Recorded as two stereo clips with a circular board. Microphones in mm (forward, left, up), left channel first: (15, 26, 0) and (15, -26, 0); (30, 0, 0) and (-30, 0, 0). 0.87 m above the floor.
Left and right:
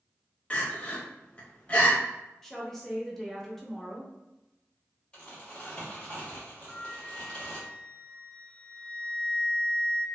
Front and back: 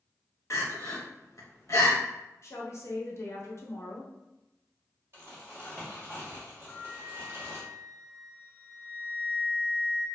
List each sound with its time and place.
0.5 s crying: 30° left, 0.7 m
2.4 s a woman speaking: 10° left, 0.7 m
5.1 s crumpling: 150° left, 1.3 m
6.7 s a flute: 35° left, 0.9 m